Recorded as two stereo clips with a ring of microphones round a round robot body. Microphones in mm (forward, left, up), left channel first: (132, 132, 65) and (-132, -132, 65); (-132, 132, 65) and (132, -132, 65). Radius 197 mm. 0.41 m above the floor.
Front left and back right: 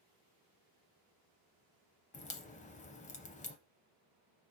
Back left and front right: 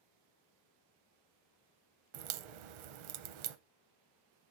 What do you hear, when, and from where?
2.1 s a crack: 30° right, 0.6 m